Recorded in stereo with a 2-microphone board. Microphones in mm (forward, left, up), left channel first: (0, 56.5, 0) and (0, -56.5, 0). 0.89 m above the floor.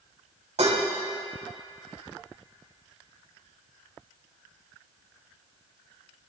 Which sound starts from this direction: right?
Dishes clattering, at 0.6 s.